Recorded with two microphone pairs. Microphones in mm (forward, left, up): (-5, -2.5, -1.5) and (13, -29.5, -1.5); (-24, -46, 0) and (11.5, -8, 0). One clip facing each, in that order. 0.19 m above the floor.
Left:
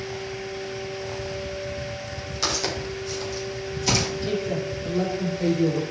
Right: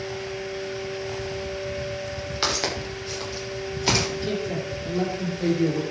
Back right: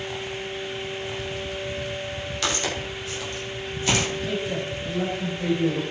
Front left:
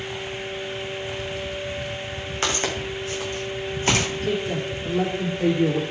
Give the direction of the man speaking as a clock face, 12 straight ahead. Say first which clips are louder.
Left 1 dB, front left 2 dB; 11 o'clock.